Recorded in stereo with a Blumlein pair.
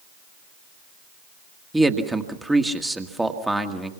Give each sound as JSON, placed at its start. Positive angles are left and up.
{"t": 1.7, "sound": "a man speaking", "azimuth_deg": -5, "distance_m": 1.7}